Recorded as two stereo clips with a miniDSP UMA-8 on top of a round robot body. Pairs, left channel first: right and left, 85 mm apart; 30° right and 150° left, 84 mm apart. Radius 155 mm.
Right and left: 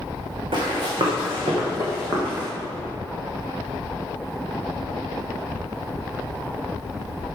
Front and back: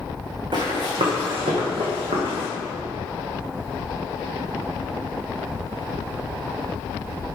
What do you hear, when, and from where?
0.5 s running footsteps: 115° left, 3 m; by 2.5 s 165° left, 3 m